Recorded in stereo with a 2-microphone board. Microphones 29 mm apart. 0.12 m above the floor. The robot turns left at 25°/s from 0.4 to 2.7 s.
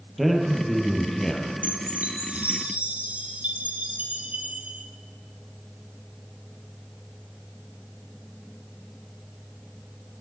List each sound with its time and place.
0.2 s a man speaking: 5° left (ahead or behind), 3 m; by 1.5 s 30° left (ahead or behind), 3 m
1.6 s a chime: 65° right (ahead or behind), 2.5 m; by 4.9 s 60° right (ahead or behind), 2.5 m